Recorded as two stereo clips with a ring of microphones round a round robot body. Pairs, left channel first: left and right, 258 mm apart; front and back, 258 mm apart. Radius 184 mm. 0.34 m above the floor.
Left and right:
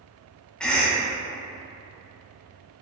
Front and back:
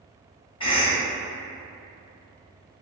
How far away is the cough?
About 0.8 m.